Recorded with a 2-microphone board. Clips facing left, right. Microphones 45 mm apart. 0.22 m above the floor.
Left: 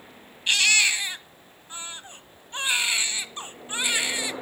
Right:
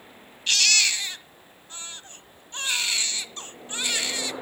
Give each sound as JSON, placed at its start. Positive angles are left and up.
{"t": 0.5, "sound": "a baby crying", "side_deg": 20, "distance_m": 1.2}